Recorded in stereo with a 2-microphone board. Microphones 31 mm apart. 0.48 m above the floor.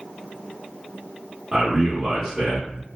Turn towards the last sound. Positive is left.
turn(degrees=-20)  # may be behind; listen again after turning